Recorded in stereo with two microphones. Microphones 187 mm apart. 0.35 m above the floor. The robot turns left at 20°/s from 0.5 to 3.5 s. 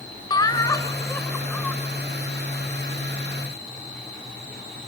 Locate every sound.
0.3 s laughter: 20° left (ahead or behind), 1.6 m; by 1.8 s 5° left (ahead or behind), 1.6 m